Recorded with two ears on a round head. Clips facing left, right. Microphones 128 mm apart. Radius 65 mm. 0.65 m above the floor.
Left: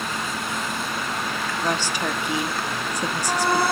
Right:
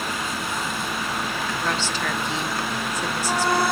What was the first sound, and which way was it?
A woman speaking, 15° left (ahead or behind).